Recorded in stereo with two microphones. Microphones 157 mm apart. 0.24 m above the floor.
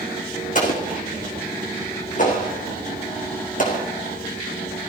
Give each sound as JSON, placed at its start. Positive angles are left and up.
{"t": 0.6, "sound": "an explosion", "side_deg": 55, "distance_m": 2.5}